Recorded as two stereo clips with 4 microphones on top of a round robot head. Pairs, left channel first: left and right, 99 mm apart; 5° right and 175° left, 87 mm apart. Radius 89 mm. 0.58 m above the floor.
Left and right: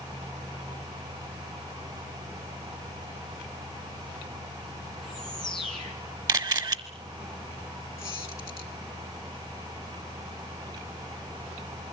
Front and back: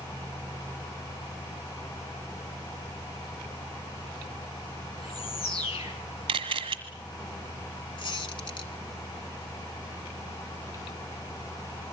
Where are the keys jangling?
I don't hear keys jangling.